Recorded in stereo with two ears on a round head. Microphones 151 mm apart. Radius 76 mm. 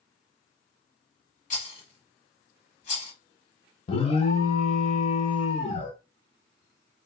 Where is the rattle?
50° left (ahead or behind), 1.0 m.